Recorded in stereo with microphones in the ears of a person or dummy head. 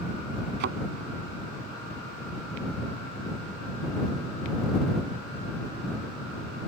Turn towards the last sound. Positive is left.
turn(degrees=-50)  # may be behind; listen again after turning